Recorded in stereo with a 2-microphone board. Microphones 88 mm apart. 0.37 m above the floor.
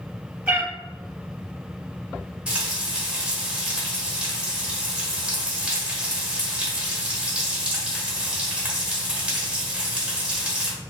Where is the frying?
10° right (ahead or behind), 0.8 m.